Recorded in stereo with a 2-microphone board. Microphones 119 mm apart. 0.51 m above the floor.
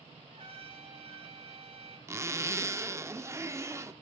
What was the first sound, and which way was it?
A trumpet, 50° right (ahead or behind).